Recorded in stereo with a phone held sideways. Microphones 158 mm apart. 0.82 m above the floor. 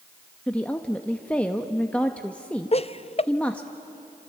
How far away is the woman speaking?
About 0.9 m.